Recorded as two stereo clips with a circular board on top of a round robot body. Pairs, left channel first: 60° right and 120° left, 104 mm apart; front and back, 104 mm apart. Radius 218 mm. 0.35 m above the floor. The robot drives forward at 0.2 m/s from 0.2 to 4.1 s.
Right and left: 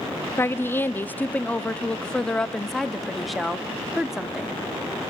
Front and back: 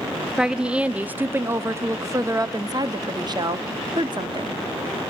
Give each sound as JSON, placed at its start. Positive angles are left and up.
{"t": 0.4, "sound": "a woman speaking", "azimuth_deg": -100, "distance_m": 0.9}